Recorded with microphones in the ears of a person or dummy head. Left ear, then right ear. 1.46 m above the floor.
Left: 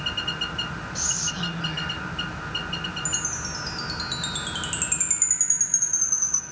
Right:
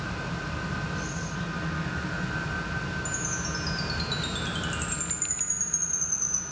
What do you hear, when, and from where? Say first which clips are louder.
0.9 s whispering: left 6 dB; 35° left (ahead or behind), 1.3 m
3.0 s a chime: left 2 dB; 15° left (ahead or behind), 0.8 m